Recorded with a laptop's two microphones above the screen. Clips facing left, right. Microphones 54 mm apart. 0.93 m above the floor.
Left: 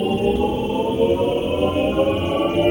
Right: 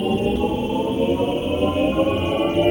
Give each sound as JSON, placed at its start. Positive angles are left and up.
{"t": 0.0, "sound": "a machine running", "side_deg": 10, "distance_m": 0.9}